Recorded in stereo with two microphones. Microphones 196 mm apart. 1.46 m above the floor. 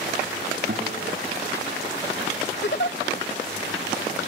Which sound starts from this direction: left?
A giggle, at 2.6 s.